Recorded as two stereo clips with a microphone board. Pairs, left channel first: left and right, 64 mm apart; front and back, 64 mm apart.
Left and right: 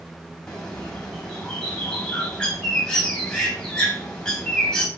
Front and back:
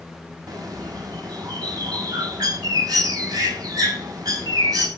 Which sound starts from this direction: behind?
A bird, at 0.5 s.